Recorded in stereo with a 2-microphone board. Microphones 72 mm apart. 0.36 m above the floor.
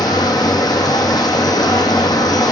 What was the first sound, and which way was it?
Running water, 65° left (ahead or behind).